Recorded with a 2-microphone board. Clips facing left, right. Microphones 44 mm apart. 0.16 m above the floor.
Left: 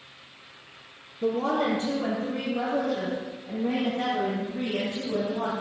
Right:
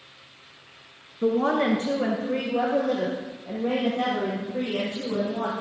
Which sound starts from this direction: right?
A woman speaking, at 1.2 s.